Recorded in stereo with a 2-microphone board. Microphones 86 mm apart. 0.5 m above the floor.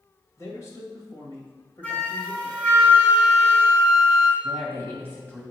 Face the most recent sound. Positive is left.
turn(degrees=25)  # may be behind; listen again after turning